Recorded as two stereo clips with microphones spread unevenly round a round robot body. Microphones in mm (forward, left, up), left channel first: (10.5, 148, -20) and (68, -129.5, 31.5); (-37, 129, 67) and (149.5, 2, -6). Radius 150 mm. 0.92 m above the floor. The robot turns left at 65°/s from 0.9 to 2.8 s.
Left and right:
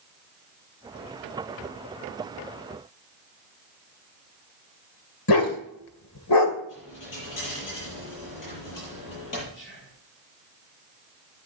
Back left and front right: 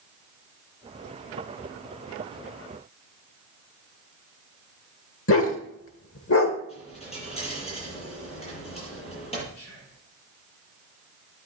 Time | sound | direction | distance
5.3 | a dog barking | 130° left | 1.8 m
6.7 | a dropped coin | 85° left | 8 m
9.5 | whispering | 160° left | 7 m